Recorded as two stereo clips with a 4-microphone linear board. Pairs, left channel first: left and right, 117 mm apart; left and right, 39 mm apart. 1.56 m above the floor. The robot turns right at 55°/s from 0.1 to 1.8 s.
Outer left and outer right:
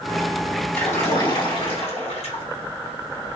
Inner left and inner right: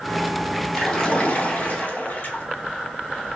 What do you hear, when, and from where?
0.7 s a splash: 15° left, 2 m; by 2.4 s 70° left, 2 m